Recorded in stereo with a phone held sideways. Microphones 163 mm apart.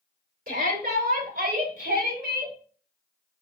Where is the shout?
75° right (ahead or behind), 3 m; by 2.5 s 80° right, 3.5 m.